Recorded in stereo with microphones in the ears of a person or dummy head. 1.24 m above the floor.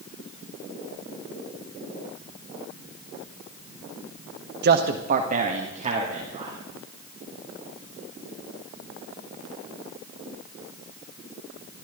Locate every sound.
4.6 s a man speaking: 55° right (ahead or behind), 1.1 m; by 6.6 s 35° right (ahead or behind), 3.5 m